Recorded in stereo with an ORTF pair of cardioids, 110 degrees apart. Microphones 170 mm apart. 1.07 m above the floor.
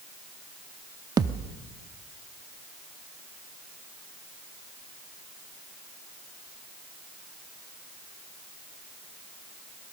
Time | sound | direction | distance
1.2 | a thud | 25° right | 1.0 m